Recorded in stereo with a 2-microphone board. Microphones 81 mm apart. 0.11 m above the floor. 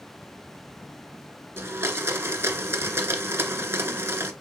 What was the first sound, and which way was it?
A blender, 30° right (ahead or behind).